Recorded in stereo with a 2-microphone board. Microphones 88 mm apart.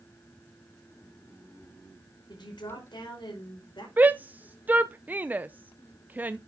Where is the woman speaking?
60° left (ahead or behind), 5.5 m.